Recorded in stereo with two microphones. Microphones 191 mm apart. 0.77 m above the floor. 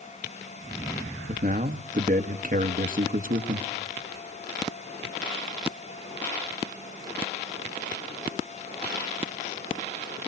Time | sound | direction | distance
1.3 | a man speaking | 45° right (ahead or behind) | 1.0 m